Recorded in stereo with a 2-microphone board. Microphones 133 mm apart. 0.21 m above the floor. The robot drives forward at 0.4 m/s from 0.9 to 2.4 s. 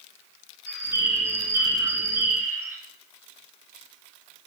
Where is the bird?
20° right (ahead or behind), 9.5 m; by 2.8 s 15° right (ahead or behind), 10 m.